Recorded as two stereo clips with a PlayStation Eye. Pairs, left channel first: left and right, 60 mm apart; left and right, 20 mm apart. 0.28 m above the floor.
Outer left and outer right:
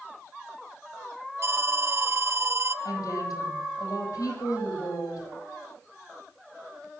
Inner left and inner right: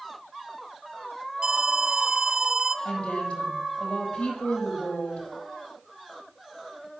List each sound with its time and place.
1.4 s an alarm: 45° right (ahead or behind), 1.3 m
2.9 s a woman speaking: 70° left (ahead or behind), 9.5 m